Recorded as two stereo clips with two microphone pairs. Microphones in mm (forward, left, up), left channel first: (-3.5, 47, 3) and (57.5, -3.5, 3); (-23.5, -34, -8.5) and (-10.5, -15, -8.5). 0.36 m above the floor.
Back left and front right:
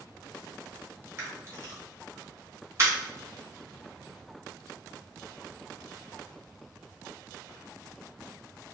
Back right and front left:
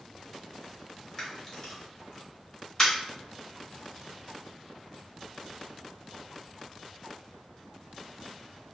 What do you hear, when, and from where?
1.2 s a camera shutter: 70° right, 1.0 m